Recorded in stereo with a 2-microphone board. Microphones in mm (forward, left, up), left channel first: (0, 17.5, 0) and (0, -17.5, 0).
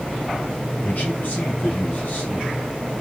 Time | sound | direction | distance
0.8 | a man speaking | 50° left (ahead or behind) | 3.5 m